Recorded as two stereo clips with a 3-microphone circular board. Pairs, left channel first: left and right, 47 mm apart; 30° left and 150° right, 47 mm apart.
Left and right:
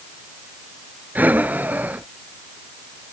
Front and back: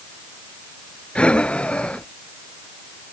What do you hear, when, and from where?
1.1 s breathing: 40° right